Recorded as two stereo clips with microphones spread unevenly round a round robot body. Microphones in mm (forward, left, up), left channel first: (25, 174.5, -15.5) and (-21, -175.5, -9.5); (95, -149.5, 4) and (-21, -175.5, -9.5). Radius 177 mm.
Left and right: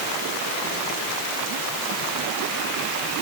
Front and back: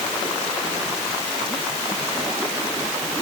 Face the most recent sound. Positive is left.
No sound to turn to.